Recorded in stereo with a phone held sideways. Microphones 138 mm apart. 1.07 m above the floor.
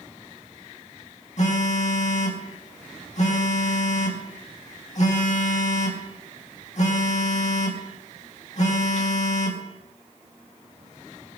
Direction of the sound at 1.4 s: 60° left (ahead or behind).